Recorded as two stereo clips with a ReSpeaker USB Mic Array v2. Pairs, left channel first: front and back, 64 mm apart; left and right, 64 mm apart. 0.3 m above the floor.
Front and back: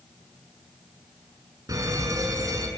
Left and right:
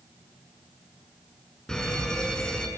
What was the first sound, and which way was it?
A fire alarm, 170° left.